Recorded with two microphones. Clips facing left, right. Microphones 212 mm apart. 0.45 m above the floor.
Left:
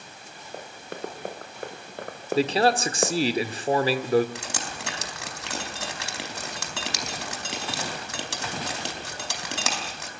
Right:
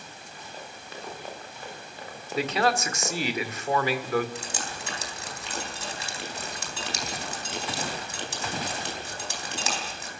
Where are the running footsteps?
55° left (ahead or behind), 3.5 m; by 3.1 s 60° left (ahead or behind), 2.0 m.